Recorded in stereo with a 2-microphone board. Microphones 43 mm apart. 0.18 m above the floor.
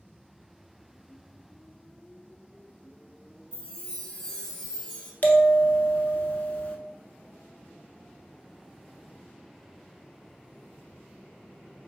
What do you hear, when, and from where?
3.5 s a chime: 25° left (ahead or behind), 1.0 m
5.2 s a bell: 40° left (ahead or behind), 0.5 m